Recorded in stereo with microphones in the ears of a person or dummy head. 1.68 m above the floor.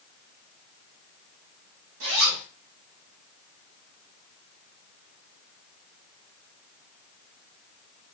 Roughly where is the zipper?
Right.